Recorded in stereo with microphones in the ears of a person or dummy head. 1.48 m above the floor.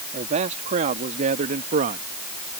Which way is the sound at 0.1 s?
40° right (ahead or behind).